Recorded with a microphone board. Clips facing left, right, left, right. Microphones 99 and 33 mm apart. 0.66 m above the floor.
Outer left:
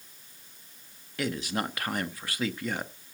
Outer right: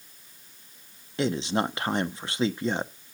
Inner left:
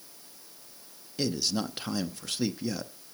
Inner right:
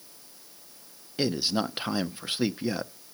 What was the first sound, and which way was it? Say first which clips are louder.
A man speaking: outer right 5 dB, inner right 3 dB; 25° right (ahead or behind).